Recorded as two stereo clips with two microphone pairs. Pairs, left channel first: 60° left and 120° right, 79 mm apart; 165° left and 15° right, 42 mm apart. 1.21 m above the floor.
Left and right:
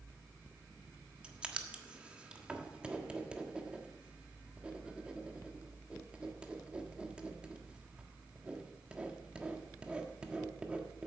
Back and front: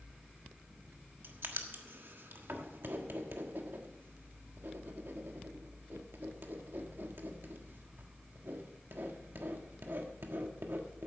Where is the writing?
45° right, 1.4 m.